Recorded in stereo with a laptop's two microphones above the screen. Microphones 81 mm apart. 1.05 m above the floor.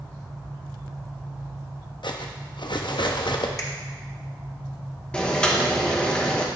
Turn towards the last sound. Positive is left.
turn(degrees=15)  # may be behind; listen again after turning